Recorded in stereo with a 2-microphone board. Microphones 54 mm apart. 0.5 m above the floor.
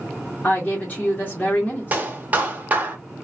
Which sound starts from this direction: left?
A woman speaking, at 0.4 s.